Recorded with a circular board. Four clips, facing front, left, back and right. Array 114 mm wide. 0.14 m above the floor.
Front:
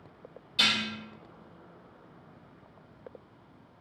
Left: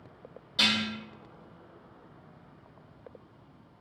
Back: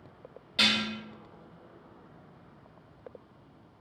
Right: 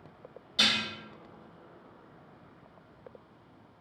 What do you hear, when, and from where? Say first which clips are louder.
0.6 s dishes clattering: left 2 dB, back 2 dB; straight behind, 1.4 m